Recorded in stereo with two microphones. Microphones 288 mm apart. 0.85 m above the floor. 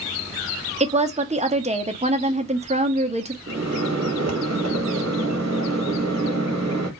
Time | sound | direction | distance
0.8 | a woman speaking | 25° right (ahead or behind) | 0.5 m
3.5 | a microwave | 65° right (ahead or behind) | 0.8 m